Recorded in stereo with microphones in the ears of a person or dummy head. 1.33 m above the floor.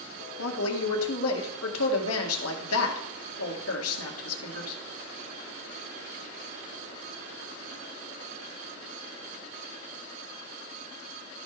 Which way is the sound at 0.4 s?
75° left (ahead or behind).